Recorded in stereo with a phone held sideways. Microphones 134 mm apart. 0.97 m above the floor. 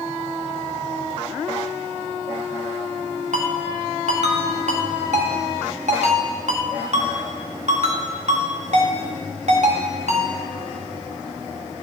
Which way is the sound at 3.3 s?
65° right (ahead or behind).